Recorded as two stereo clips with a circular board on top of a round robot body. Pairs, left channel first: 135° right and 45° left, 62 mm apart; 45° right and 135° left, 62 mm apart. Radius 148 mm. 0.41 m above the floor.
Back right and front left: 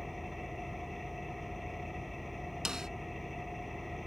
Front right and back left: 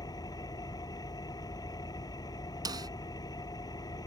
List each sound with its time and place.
0.0 s an engine running: 45° right
2.6 s a snare drum: 125° left